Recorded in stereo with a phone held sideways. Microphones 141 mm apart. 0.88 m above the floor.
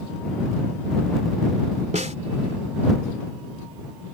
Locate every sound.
1.9 s a snare drum: 55° right (ahead or behind)